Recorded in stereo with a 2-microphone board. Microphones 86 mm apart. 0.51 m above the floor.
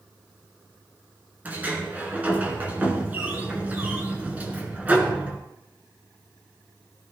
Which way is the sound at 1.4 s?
20° right (ahead or behind).